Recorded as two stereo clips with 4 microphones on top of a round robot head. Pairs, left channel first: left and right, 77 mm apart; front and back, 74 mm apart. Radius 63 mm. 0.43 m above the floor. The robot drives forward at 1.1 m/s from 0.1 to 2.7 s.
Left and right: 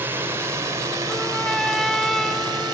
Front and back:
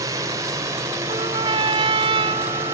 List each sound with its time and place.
0.0 s a drone: 150° right; by 2.7 s 120° right
1.1 s a trumpet: 175° left; by 2.7 s straight behind